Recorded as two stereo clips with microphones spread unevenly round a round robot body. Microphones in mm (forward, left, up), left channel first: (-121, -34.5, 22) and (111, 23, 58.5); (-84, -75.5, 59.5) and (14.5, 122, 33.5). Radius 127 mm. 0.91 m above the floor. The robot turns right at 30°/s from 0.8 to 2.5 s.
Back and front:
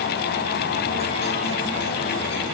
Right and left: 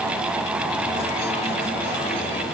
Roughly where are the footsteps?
I don't hear footsteps.